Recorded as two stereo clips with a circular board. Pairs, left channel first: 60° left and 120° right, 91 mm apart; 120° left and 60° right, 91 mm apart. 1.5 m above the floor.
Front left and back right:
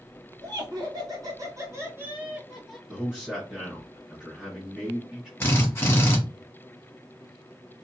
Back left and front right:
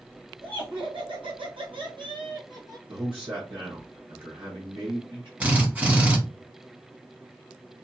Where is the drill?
5° left, 1.0 m.